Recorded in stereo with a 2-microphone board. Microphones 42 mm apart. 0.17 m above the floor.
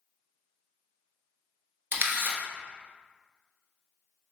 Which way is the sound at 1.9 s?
60° right (ahead or behind).